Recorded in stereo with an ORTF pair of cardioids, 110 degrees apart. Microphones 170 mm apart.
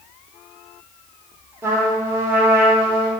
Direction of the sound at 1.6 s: 15° right.